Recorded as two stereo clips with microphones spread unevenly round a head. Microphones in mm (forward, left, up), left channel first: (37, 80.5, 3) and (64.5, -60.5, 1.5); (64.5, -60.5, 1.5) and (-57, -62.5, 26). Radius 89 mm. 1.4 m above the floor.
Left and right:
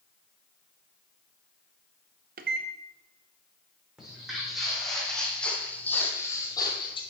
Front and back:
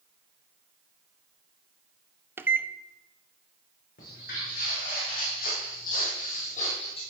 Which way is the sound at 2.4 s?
110° right.